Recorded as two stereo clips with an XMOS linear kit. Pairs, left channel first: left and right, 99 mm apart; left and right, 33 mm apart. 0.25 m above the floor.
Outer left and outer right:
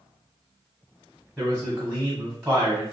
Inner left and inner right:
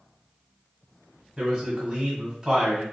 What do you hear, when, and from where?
1.4 s a man speaking: 15° right (ahead or behind), 1.4 m